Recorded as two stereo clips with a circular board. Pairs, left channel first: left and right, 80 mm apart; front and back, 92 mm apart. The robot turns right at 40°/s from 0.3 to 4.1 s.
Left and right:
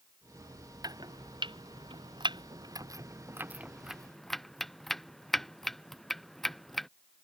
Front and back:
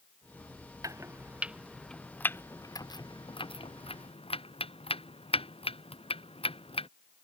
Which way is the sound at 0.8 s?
125° right.